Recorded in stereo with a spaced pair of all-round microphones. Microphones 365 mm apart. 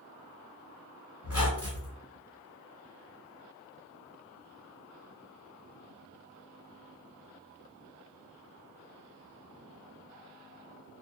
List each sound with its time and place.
1.2 s a squeak: 40° left (ahead or behind), 1.3 m